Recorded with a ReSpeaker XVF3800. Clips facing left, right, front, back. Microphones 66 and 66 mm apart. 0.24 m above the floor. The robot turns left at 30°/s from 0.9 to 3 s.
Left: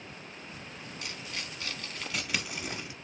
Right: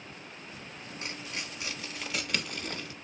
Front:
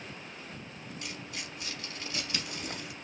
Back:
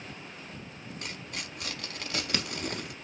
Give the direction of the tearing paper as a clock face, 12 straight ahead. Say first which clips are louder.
Right 2 dB, back 2 dB; 5 o'clock.